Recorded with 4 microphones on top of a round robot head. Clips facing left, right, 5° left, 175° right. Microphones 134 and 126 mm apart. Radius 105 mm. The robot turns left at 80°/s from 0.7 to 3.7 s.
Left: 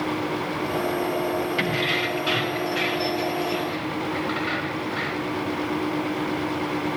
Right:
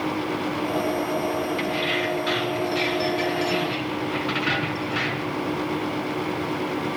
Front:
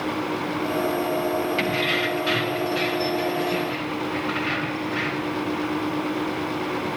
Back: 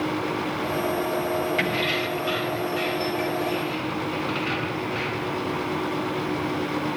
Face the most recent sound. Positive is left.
turn(degrees=-105)